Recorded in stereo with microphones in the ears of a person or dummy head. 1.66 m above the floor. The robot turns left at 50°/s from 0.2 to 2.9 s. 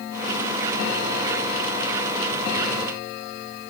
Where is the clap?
I don't hear a clap.